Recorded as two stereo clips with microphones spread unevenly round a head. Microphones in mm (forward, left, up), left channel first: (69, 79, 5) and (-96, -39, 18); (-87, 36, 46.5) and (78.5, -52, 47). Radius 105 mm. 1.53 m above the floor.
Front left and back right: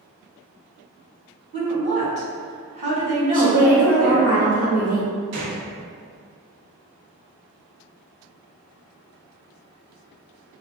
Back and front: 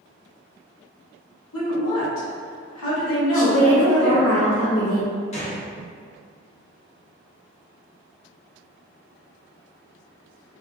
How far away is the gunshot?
About 0.8 m.